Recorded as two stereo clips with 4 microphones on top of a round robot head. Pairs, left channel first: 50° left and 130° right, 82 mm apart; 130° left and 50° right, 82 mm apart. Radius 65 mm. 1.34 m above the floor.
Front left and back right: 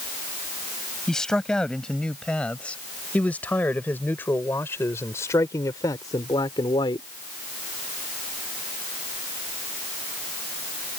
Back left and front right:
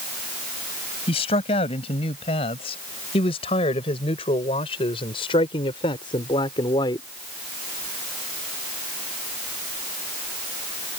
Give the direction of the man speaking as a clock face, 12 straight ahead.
8 o'clock.